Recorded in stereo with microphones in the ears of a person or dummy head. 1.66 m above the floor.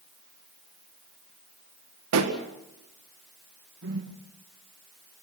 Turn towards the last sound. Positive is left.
turn(degrees=-60)  # may be behind; listen again after turning